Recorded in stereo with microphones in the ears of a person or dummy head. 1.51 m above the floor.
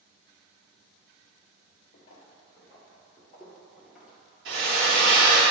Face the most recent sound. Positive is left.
turn(degrees=-65)  # may be behind; listen again after turning